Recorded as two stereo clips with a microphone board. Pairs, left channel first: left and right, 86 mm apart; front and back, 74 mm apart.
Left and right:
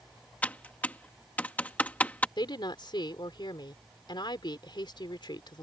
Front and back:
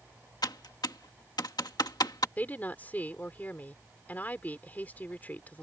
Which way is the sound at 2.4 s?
65° left.